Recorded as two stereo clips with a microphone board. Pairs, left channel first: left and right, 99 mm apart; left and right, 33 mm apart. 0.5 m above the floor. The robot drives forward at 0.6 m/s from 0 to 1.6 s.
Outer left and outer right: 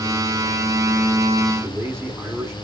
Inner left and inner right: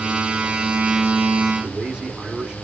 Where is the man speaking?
25° right (ahead or behind), 1.1 m.